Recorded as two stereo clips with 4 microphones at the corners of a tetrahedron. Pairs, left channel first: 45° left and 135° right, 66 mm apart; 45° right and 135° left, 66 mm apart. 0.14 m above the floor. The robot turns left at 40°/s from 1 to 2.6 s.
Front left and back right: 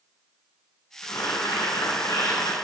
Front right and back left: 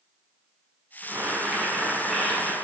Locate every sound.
1.0 s boiling: 85° left, 8.5 m; by 2.5 s 25° left, 8.5 m